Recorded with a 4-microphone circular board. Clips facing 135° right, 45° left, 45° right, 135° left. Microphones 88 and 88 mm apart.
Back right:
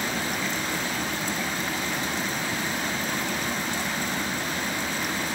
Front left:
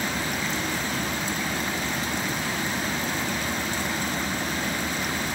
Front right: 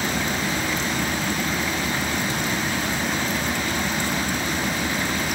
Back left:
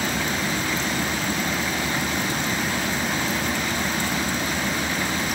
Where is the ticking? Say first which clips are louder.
Even, front right 1 dB; 150° right, 3 m.